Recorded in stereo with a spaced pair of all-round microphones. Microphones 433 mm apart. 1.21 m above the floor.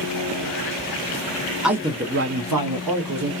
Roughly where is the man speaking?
Centre.